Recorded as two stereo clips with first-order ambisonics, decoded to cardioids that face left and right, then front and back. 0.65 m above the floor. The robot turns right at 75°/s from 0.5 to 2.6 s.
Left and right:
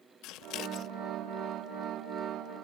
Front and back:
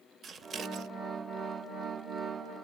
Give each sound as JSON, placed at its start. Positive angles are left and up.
{"t": 0.2, "sound": "scissors", "azimuth_deg": 115, "distance_m": 0.6}